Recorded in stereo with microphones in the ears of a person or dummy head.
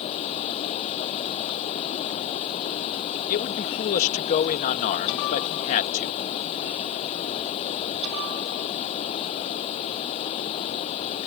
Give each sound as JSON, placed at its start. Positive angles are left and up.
{"t": 0.0, "sound": "running water", "side_deg": 35}
{"t": 3.3, "sound": "a man speaking", "side_deg": 45}